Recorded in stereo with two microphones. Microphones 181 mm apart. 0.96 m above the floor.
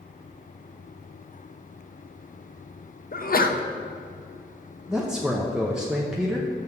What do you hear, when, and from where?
3.1 s a sneeze: 50° left (ahead or behind), 0.6 m
4.9 s a man speaking: 5° right (ahead or behind), 0.7 m